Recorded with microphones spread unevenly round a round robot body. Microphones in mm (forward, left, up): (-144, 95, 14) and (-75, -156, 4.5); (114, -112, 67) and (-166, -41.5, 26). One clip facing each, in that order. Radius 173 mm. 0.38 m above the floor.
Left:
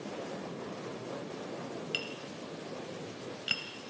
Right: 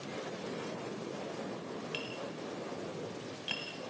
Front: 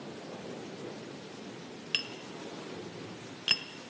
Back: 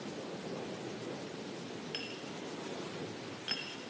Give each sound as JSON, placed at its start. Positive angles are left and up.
{"t": 1.9, "sound": "tapping", "azimuth_deg": 30, "distance_m": 0.9}